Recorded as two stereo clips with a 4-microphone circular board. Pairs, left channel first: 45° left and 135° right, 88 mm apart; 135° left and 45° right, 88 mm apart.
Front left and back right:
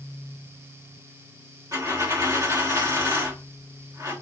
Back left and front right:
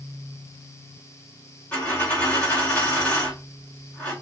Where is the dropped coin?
165° right, 1.4 m.